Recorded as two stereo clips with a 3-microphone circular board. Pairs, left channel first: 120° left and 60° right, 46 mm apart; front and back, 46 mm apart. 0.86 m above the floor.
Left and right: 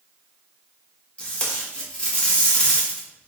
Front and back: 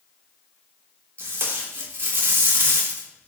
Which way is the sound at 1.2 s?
Straight behind.